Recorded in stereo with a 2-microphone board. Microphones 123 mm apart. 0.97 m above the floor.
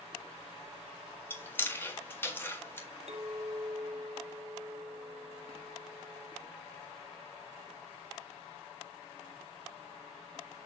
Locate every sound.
1.3 s chewing: 15° left (ahead or behind), 1.6 m
3.1 s a clink: 55° right (ahead or behind), 0.8 m